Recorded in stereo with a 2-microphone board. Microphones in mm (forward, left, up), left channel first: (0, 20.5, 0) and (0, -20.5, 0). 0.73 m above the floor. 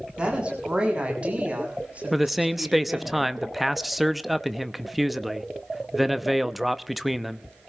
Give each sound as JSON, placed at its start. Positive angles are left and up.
{"t": 0.2, "sound": "a woman speaking", "side_deg": -25, "distance_m": 7.0}
{"t": 2.1, "sound": "a man speaking", "side_deg": -5, "distance_m": 0.7}